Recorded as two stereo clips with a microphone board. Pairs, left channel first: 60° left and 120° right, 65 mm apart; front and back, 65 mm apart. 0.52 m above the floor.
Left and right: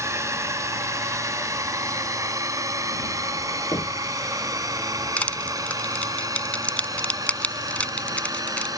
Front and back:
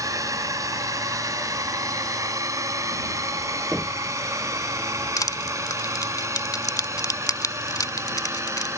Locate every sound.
0.0 s a drone: 155° right; by 8.8 s 140° right
3.7 s knocking: 80° left
5.2 s crushing: 5° right